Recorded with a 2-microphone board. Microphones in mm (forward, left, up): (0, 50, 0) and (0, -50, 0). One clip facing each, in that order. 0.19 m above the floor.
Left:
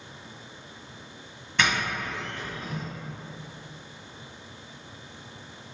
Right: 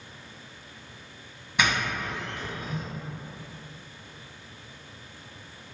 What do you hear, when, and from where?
1.6 s a doorbell: 10° right (ahead or behind), 1.4 m